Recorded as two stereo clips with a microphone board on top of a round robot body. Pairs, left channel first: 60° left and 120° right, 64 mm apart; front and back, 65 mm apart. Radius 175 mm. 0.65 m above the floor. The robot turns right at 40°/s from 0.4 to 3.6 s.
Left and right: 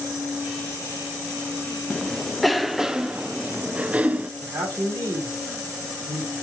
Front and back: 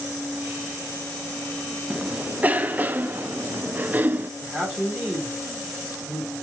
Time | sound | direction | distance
1.9 | a cough | 130° left | 0.6 m
4.4 | a man speaking | 100° right | 1.6 m